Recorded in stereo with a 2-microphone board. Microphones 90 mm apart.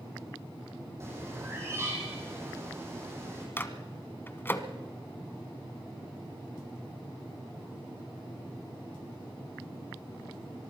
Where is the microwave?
25° left (ahead or behind), 1.2 m.